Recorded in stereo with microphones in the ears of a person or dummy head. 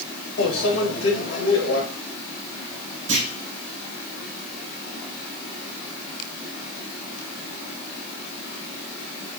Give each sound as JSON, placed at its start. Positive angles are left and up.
{"t": 0.4, "sound": "a microwave", "side_deg": 70, "distance_m": 2.0}
{"t": 3.1, "sound": "a clunk", "side_deg": -35, "distance_m": 2.5}